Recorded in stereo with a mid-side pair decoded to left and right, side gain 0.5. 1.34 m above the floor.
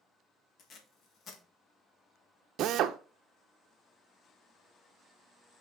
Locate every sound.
0.6 s tape being pulled: 50° left, 2.0 m
2.6 s a drill: 65° right, 0.7 m